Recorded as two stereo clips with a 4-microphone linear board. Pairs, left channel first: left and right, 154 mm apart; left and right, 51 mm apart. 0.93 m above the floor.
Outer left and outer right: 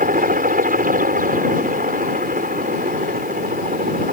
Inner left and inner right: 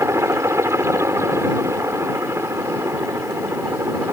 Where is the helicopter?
65° right (ahead or behind).